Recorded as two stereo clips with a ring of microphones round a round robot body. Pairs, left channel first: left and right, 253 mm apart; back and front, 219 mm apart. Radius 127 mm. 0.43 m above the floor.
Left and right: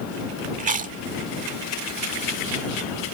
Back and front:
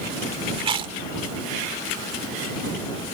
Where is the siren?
I don't hear a siren.